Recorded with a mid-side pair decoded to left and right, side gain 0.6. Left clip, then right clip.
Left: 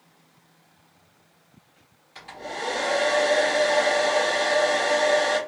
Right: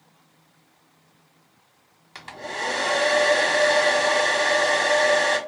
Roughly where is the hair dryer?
Ahead right.